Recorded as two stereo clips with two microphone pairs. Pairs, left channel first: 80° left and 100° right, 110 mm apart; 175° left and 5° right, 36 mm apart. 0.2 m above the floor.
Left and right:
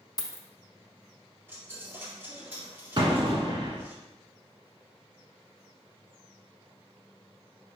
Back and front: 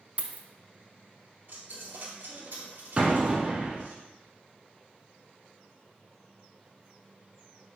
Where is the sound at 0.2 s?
35° left, 0.5 m.